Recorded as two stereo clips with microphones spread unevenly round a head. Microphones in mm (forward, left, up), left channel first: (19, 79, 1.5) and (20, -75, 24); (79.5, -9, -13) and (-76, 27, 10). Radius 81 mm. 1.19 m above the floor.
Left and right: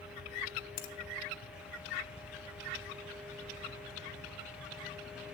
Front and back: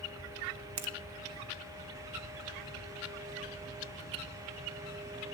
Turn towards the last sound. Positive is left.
turn(degrees=155)